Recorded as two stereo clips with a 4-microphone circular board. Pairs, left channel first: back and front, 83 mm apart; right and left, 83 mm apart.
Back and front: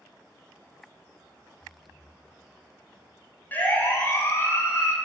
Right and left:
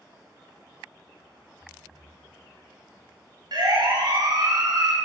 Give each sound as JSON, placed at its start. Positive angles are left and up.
{"t": 1.6, "sound": "breathing", "azimuth_deg": -150, "distance_m": 3.5}
{"t": 3.5, "sound": "a siren", "azimuth_deg": 115, "distance_m": 3.5}